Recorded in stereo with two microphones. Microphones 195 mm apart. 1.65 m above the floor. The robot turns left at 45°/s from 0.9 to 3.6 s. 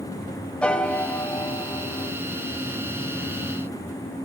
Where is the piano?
5° left (ahead or behind), 0.7 m; by 2.1 s 20° left (ahead or behind), 0.7 m.